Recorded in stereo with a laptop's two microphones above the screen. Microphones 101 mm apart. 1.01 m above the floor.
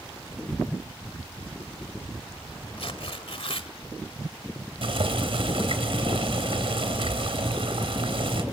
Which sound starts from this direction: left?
Tearing paper, at 2.8 s.